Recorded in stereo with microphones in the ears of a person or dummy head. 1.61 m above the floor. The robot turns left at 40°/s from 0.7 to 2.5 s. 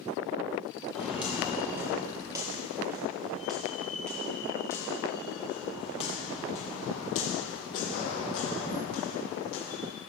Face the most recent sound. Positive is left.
turn(degrees=55)  # may be behind; listen again after turning